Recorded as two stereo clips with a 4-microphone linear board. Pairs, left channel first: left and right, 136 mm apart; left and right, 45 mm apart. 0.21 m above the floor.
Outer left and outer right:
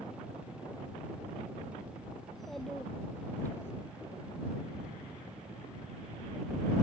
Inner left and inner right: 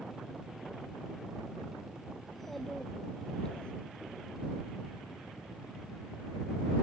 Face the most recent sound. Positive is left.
turn(degrees=20)  # may be behind; listen again after turning